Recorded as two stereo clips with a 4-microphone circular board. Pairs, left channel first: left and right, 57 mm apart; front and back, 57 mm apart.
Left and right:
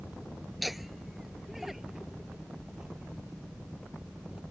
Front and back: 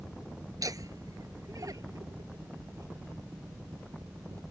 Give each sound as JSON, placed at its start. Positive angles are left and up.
{"t": 0.6, "sound": "laughter", "azimuth_deg": 180}